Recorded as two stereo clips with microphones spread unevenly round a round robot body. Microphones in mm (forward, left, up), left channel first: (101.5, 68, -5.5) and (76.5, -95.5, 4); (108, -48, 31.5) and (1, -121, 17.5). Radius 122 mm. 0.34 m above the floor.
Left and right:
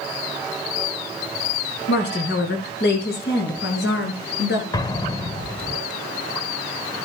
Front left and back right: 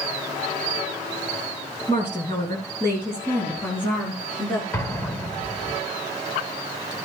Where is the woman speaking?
100° left, 4 m; by 4.6 s 120° left, 5 m.